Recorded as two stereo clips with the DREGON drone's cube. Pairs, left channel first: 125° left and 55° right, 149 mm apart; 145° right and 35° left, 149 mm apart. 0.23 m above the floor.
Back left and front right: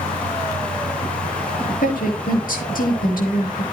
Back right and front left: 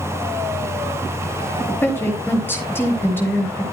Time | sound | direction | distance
1.8 | a woman speaking | 140° left | 6 m